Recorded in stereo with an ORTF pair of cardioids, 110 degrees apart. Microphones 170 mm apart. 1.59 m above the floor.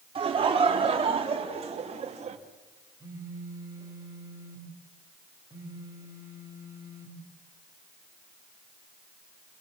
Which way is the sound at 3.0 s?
20° right.